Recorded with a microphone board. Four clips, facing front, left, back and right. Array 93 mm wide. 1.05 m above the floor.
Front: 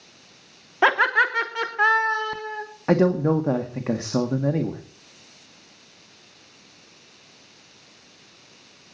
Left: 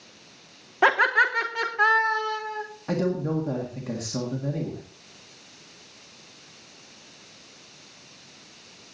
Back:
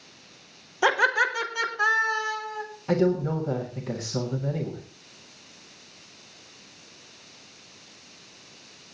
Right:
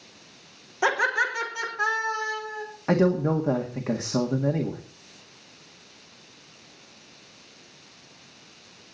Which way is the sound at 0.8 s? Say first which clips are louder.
Left 4 dB, front 3 dB; 30° left.